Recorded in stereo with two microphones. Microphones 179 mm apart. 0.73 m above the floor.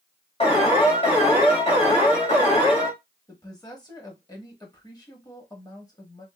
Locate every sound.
0.4 s an alarm: 35° left (ahead or behind), 1.9 m
3.3 s a woman speaking: 20° left (ahead or behind), 1.1 m